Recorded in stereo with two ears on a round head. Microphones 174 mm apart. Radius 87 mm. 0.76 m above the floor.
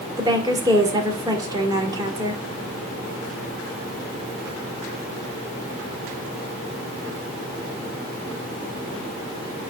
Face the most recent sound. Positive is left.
turn(degrees=-20)  # may be behind; listen again after turning